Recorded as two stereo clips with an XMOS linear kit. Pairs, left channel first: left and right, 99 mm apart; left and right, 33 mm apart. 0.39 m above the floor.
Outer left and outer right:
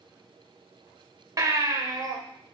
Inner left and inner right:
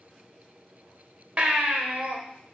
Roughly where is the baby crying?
Right.